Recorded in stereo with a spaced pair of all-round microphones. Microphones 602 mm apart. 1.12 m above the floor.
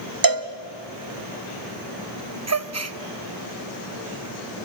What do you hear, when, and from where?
0.2 s a cowbell: 35° right (ahead or behind), 1.1 m
2.5 s a gasp: 25° right (ahead or behind), 0.7 m